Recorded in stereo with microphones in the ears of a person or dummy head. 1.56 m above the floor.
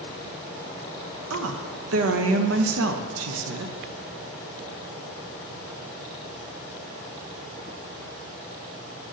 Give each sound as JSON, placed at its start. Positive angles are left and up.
{"t": 1.3, "sound": "a woman speaking", "side_deg": -75, "distance_m": 0.6}